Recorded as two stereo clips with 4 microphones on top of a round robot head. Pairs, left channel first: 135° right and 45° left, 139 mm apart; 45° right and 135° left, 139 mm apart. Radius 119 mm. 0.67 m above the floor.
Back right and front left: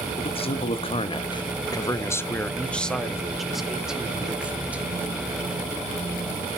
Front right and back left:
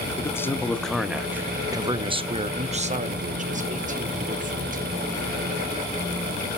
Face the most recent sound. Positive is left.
turn(degrees=125)